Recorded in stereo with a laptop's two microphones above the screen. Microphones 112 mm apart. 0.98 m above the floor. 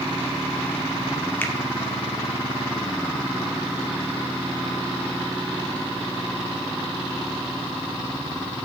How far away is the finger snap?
About 0.6 m.